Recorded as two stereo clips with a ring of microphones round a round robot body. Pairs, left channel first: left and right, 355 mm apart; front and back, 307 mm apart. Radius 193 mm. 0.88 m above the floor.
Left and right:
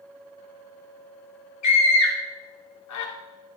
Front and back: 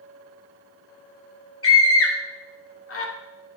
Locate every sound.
1.6 s a scream: 45° left, 2 m